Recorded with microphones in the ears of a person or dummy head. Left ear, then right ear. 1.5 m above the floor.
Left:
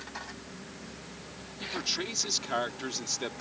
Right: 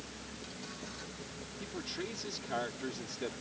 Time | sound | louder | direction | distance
1.6 | a man speaking | left 9 dB | 45° left (ahead or behind) | ?